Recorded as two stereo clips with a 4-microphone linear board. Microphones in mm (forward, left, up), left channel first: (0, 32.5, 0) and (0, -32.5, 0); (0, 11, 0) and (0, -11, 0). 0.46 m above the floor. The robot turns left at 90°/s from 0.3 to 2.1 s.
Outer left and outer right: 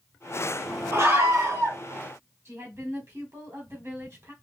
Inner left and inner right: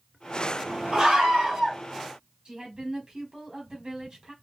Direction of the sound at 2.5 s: 35° right (ahead or behind).